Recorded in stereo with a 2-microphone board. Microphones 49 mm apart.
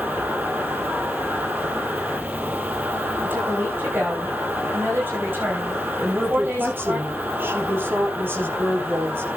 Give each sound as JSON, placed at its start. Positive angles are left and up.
{"t": 0.0, "sound": "an insect", "side_deg": -75, "distance_m": 9.5}
{"t": 3.2, "sound": "a woman speaking", "side_deg": -50, "distance_m": 9.5}
{"t": 6.0, "sound": "a woman speaking", "side_deg": -55, "distance_m": 4.0}